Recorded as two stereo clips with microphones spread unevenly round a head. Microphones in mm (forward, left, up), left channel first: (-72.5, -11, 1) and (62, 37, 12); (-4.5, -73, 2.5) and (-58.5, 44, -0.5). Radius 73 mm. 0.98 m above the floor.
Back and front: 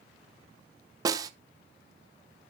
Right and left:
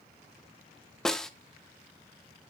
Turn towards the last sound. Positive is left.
turn(degrees=15)